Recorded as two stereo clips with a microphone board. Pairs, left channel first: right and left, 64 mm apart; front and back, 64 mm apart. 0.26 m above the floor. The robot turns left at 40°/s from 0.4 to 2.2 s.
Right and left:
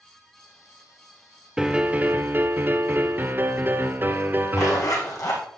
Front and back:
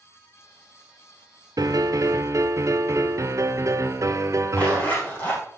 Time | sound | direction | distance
1.6 | a piano | 170° left | 0.8 m
4.5 | a zipper | 65° right | 4.5 m